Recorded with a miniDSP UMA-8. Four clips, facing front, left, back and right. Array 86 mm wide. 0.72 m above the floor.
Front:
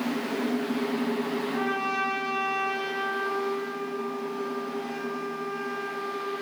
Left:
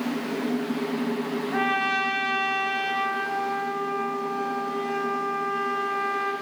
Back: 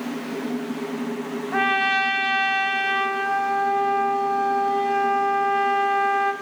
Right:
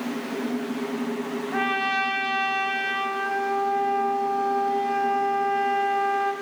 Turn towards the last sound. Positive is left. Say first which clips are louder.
# even, back 11 dB
turn(degrees=-175)